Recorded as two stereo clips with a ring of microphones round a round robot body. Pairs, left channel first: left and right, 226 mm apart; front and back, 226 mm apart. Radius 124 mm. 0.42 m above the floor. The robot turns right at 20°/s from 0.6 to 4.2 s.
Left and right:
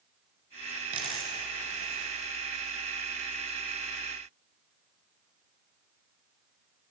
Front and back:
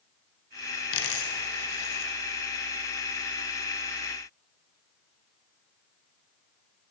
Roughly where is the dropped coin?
Ahead right.